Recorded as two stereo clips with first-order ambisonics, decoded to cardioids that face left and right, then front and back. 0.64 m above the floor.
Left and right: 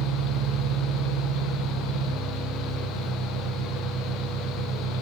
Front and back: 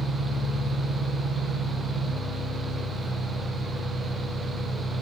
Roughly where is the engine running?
Right.